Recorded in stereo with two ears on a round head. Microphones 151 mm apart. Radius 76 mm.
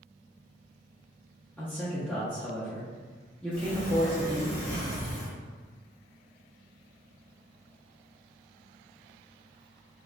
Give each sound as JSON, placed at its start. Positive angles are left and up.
{"t": 1.6, "sound": "a man speaking", "side_deg": 10, "distance_m": 0.5}
{"t": 3.5, "sound": "a sliding door", "side_deg": 45, "distance_m": 1.5}